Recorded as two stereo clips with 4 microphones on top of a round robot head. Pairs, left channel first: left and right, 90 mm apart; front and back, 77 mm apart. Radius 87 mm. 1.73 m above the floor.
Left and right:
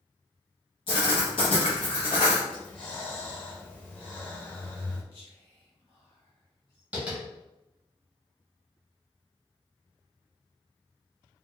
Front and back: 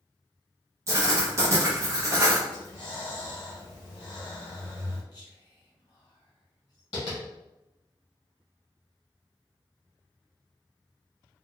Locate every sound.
0.9 s writing: 135° left, 0.6 m
2.5 s breathing: 15° left, 0.8 m
5.1 s whispering: 30° left, 1.3 m
6.9 s tapping: 20° right, 1.0 m